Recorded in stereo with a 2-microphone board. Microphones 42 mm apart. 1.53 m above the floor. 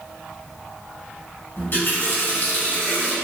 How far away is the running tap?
About 1.1 m.